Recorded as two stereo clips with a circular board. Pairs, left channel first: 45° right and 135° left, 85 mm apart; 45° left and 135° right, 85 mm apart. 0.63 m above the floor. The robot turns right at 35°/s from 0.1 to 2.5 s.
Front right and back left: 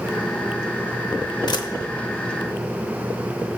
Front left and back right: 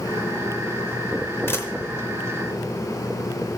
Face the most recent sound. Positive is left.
turn(degrees=20)